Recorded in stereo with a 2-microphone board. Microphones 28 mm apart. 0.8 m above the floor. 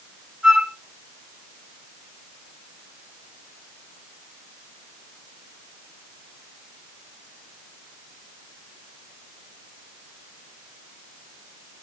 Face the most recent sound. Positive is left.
turn(degrees=-25)  # may be behind; listen again after turning